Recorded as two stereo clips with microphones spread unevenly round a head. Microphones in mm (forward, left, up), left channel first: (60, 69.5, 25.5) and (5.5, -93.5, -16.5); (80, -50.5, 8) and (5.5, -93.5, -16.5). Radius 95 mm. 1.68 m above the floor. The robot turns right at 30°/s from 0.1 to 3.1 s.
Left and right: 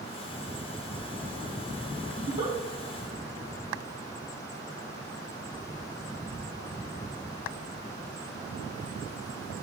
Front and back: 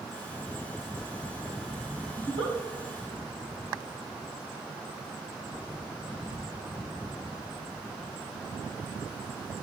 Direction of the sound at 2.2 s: 160° right.